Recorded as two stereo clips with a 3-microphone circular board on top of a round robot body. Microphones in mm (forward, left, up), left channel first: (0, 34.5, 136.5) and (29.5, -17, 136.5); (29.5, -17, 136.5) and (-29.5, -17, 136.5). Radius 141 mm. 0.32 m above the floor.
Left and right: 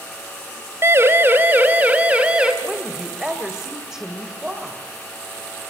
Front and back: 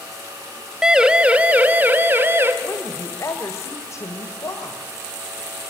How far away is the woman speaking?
About 2.5 m.